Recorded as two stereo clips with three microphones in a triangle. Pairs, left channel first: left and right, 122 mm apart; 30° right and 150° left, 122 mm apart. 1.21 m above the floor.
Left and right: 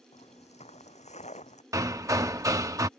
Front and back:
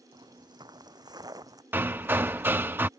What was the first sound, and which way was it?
Footsteps, 100° left.